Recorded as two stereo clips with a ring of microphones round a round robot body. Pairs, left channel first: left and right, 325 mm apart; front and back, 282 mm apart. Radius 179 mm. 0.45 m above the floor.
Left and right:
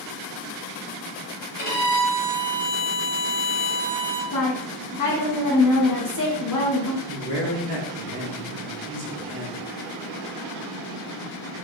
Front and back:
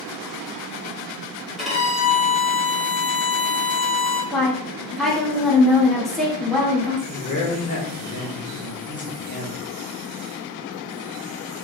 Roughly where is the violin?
Left.